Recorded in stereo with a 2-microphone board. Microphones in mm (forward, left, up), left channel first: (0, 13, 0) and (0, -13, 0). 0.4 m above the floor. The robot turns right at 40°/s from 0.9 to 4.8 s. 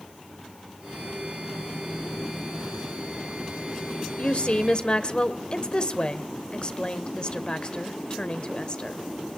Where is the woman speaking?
50° left (ahead or behind), 1.2 m; by 9.0 s 40° left (ahead or behind), 1.2 m.